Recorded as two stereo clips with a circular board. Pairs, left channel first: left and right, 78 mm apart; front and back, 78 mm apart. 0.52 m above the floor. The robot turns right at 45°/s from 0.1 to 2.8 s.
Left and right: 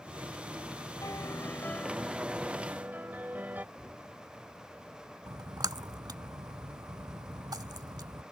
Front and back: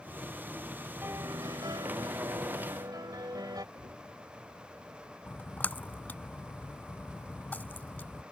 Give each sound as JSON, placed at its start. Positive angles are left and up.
{"t": 1.0, "sound": "a piano", "azimuth_deg": 125}
{"t": 3.8, "sound": "knocking", "azimuth_deg": -170}
{"t": 5.3, "sound": "a splash", "azimuth_deg": -65}